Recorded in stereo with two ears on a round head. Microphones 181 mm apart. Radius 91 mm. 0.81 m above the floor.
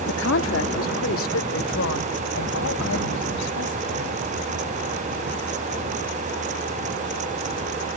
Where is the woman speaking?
65° left (ahead or behind); by 4.2 s 85° left.